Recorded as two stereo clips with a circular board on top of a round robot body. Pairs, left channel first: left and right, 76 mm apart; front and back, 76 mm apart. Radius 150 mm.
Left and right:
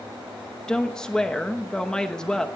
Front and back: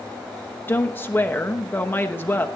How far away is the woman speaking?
About 1.1 m.